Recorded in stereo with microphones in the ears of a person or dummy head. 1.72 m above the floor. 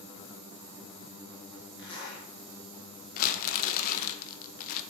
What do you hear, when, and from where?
1.8 s a zipper: 25° left (ahead or behind), 1.7 m
3.2 s crumpling: 55° left (ahead or behind), 0.5 m